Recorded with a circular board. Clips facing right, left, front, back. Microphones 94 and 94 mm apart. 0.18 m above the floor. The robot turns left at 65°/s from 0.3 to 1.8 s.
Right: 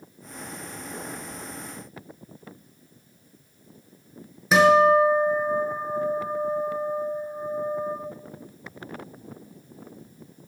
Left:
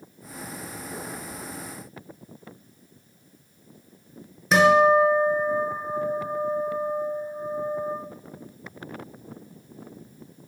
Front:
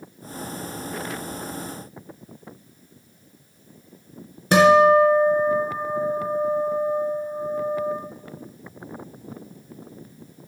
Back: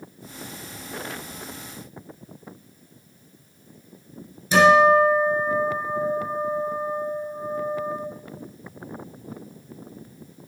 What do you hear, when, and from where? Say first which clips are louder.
4.5 s a guitar: right 1 dB, front 1 dB; straight ahead, 1.8 m